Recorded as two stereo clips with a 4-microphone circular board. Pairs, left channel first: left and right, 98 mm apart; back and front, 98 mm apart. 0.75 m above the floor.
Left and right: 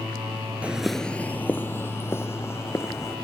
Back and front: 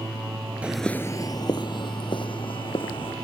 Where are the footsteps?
45° right; by 3.1 s 150° left.